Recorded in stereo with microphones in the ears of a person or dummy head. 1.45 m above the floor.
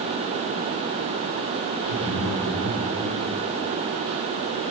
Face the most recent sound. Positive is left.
turn(degrees=-85)